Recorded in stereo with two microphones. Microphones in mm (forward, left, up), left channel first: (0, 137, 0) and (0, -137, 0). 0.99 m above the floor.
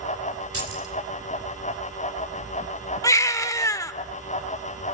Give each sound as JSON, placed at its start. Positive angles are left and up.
{"t": 0.5, "sound": "keys jangling", "side_deg": -55, "distance_m": 3.5}
{"t": 3.0, "sound": "a baby crying", "side_deg": 10, "distance_m": 0.8}